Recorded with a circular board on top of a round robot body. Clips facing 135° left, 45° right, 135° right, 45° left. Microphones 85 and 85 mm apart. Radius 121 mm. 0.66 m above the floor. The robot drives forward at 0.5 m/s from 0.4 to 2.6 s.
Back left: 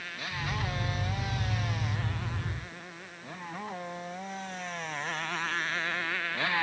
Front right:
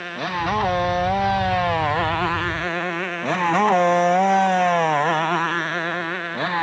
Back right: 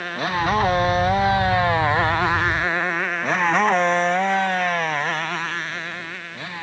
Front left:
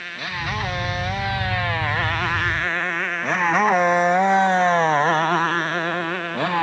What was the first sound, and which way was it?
A motorcycle, 85° right.